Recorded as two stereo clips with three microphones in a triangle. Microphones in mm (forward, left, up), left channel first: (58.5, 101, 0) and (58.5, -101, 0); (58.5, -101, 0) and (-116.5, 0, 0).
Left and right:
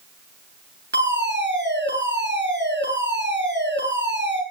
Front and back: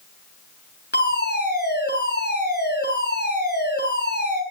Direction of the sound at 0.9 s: 60° right.